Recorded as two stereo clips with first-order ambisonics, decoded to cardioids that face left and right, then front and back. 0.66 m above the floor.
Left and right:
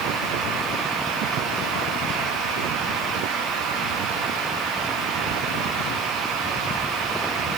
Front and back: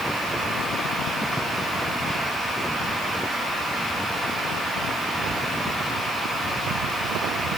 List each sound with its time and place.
Only background noise.